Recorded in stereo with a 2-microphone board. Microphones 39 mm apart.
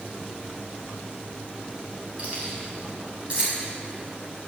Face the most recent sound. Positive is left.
turn(degrees=-30)  # may be behind; listen again after turning